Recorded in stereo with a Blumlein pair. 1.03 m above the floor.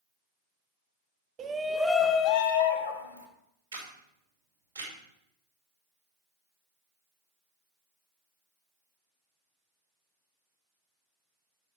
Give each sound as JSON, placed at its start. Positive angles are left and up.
{"t": 1.4, "sound": "a shout", "azimuth_deg": -25, "distance_m": 0.7}
{"t": 3.7, "sound": "a camera shutter", "azimuth_deg": -65, "distance_m": 3.0}